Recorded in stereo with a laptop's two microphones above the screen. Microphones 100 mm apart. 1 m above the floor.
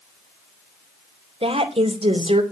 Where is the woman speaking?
80° right, 3 m.